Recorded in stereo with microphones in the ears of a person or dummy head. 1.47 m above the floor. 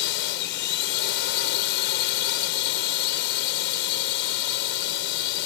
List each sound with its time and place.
0.0 s a drone: 60° left (ahead or behind)